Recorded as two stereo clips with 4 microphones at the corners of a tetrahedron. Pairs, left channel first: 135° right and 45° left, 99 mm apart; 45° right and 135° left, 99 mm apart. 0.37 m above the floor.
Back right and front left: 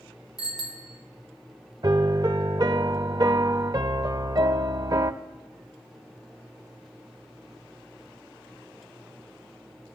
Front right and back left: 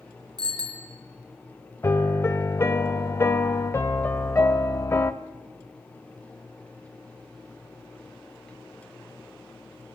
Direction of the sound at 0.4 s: Straight behind.